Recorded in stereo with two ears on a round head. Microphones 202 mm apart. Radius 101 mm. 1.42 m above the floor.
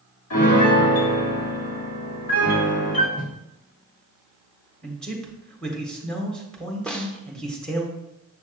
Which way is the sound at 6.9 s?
5° left (ahead or behind).